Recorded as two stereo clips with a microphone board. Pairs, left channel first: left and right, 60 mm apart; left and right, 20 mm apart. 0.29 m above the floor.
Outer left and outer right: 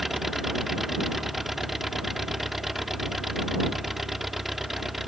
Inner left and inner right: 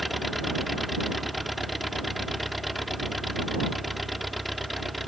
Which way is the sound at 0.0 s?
5° right (ahead or behind).